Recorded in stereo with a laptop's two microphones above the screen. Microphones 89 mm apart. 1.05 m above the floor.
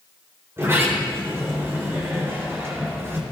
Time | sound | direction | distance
0.6 | a sliding door | 30° right (ahead or behind) | 4 m